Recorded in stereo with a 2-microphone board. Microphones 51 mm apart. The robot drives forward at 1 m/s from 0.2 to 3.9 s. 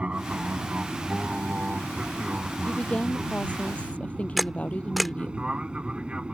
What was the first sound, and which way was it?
An aircraft, 25° right (ahead or behind).